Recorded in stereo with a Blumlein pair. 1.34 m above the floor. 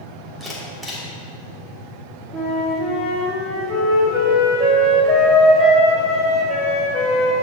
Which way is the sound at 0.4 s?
Straight ahead.